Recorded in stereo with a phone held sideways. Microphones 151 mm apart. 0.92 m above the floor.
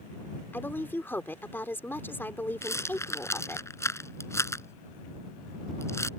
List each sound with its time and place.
0.5 s a woman speaking: 15° left (ahead or behind)
2.6 s a rattle: 15° left (ahead or behind)